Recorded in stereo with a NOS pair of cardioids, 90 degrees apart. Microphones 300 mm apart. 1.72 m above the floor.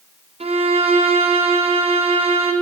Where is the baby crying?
I don't hear a baby crying.